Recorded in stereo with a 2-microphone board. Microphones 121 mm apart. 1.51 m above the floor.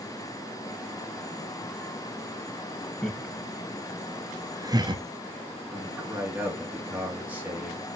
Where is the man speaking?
10° right (ahead or behind), 3 m.